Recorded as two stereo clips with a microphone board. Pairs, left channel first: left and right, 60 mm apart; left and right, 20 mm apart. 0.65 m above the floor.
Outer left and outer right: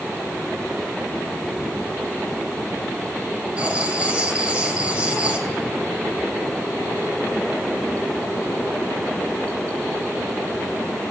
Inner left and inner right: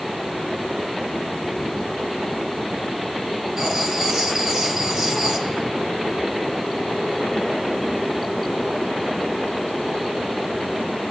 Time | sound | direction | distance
3.6 | writing | 20° right (ahead or behind) | 3 m